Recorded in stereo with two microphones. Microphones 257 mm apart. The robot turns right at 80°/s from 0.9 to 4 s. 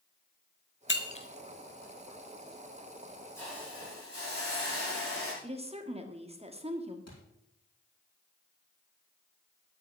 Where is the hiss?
170° left, 6.5 m; by 5.3 s 140° right, 6.5 m.